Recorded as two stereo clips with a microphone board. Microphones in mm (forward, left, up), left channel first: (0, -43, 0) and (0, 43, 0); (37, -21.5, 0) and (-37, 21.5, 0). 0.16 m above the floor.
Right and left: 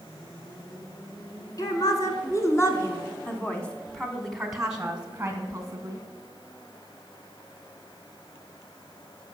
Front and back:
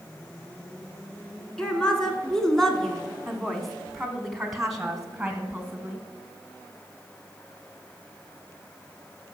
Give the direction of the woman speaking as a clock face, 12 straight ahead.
4 o'clock.